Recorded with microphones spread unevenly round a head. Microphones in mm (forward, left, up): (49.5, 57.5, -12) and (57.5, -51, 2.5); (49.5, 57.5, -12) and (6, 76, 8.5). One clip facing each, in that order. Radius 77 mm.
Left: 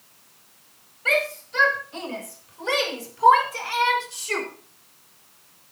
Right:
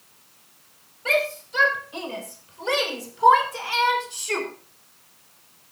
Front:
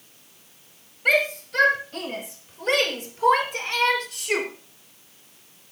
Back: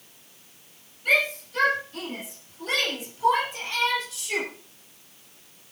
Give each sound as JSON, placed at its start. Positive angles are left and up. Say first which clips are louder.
{"t": 1.1, "sound": "a shout", "louder": "right 1 dB, front 2 dB", "azimuth_deg": -15, "distance_m": 9.0}